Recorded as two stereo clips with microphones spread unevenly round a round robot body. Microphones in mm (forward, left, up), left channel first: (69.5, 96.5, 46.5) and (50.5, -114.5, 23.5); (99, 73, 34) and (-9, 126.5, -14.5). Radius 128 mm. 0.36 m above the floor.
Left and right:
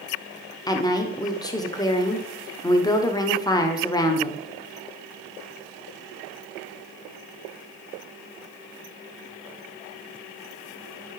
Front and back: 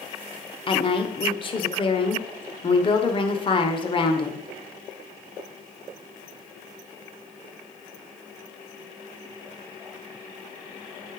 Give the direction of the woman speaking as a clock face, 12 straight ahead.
11 o'clock.